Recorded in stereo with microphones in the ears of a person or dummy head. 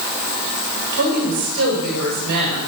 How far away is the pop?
I don't hear a pop.